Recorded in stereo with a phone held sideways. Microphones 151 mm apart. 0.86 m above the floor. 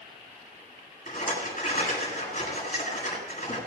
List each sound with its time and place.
1.1 s a rattle: 55° left (ahead or behind), 8 m